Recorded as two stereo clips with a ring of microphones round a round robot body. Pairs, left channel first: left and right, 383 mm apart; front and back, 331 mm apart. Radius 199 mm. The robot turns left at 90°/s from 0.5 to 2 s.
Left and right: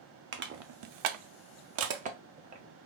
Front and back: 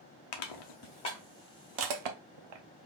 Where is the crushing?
25° right, 0.6 m; by 2.6 s 160° right, 0.6 m.